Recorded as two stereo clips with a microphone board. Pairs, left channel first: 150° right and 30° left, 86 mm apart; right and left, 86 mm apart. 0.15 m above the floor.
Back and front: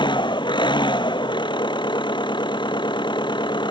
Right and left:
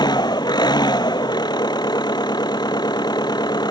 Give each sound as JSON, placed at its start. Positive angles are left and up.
{"t": 0.0, "sound": "an engine running", "azimuth_deg": -125}